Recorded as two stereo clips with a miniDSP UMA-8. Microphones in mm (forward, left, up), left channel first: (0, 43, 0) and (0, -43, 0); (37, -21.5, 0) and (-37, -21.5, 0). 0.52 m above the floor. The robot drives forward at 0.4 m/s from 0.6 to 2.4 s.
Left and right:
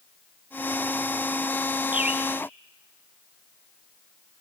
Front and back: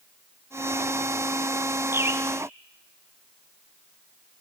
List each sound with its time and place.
1.9 s a bird: 150° right, 1.4 m; by 2.2 s 155° right, 1.5 m